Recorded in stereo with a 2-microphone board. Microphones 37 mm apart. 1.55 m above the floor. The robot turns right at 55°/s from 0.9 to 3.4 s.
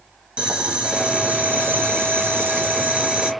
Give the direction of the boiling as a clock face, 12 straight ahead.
5 o'clock.